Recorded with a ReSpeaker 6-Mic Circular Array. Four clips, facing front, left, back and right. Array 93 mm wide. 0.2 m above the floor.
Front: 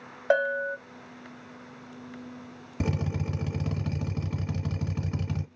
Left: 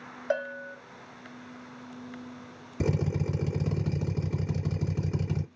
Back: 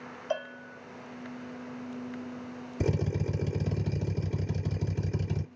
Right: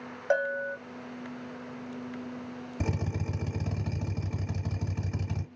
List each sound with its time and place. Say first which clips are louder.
0.3 s a bell: right 3 dB, front 11 dB; 5° right, 0.5 m
2.8 s a drill: left 6 dB, even; 10° left, 2.5 m